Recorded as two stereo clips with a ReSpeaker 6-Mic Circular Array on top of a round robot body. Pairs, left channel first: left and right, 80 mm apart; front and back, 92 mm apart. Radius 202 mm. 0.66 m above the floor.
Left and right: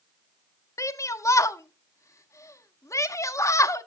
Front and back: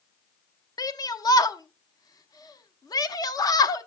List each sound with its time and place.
0.8 s a shout: 45° left, 0.9 m